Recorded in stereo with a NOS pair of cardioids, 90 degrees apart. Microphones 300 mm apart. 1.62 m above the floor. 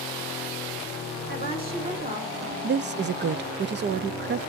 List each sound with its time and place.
1.3 s a woman speaking: 30° right, 3.5 m
2.6 s a woman speaking: 35° right, 0.6 m